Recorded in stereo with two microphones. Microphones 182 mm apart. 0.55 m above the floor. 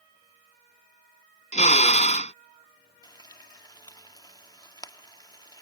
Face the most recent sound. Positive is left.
turn(degrees=20)  # may be behind; listen again after turning